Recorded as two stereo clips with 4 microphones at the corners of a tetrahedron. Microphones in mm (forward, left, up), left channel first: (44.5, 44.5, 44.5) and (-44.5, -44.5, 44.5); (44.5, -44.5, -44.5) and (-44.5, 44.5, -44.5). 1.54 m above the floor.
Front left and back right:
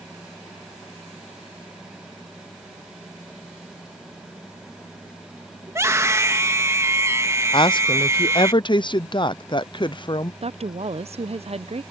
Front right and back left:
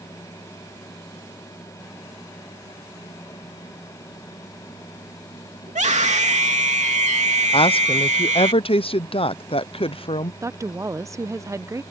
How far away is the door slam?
I don't hear a door slam.